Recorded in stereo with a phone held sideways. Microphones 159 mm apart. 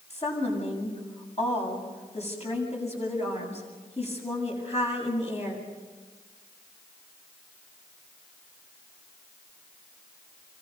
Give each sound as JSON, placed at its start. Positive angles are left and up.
{"t": 0.1, "sound": "a woman speaking", "side_deg": 40, "distance_m": 8.0}